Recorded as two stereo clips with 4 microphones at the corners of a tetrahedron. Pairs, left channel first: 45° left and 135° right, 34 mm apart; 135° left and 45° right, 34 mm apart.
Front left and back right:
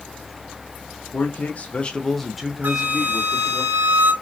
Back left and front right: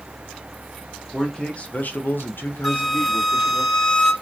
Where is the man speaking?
60° left, 0.8 m; by 3.6 s 165° left, 1.4 m.